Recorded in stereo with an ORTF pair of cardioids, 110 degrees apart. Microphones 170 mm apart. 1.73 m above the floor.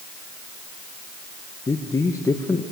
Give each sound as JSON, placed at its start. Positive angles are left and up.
{"t": 1.7, "sound": "a man speaking", "azimuth_deg": 20, "distance_m": 1.6}